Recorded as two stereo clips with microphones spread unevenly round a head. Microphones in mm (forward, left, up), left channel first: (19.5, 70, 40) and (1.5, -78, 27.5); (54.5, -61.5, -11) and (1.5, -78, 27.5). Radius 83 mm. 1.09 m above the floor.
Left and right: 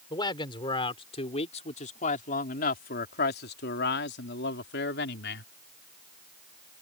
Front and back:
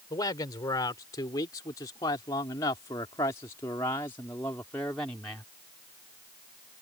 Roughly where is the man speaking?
Ahead.